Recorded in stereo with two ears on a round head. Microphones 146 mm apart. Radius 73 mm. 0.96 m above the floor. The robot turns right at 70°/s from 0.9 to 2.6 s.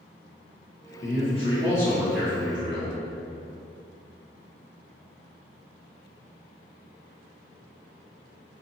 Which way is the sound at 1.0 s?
110° left.